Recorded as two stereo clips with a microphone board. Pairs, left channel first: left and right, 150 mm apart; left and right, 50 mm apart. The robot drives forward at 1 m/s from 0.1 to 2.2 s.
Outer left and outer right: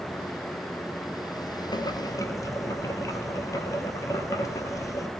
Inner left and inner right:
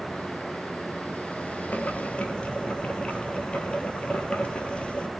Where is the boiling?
30° left (ahead or behind), 1.3 m; by 5.1 s 20° left (ahead or behind), 1.7 m.